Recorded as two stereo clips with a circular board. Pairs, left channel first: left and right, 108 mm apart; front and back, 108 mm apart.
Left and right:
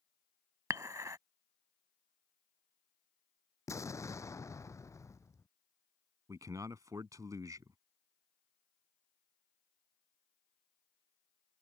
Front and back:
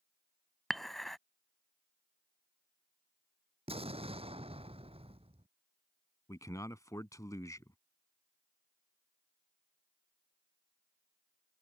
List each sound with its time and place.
0.7 s dishes clattering: 90° right
3.7 s an explosion: 150° left
6.3 s a man speaking: 45° right